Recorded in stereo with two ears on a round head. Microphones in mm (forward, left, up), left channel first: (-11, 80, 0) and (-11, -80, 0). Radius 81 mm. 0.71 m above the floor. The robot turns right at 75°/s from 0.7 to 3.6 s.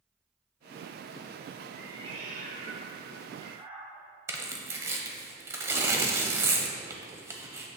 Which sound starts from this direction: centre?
Tearing paper, at 4.3 s.